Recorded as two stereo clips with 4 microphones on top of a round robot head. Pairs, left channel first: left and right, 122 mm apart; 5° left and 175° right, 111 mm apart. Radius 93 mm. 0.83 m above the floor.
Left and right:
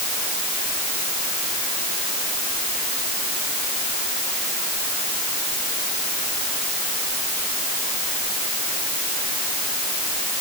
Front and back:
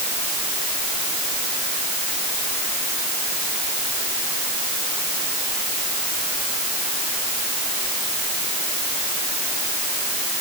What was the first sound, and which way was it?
Only background noise.